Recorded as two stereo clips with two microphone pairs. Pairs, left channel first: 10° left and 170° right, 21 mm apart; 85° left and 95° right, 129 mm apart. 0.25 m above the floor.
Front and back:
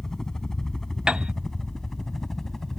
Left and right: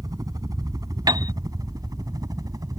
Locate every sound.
0.0 s a helicopter: 40° right; by 2.8 s 45° right
1.1 s a piano: 140° right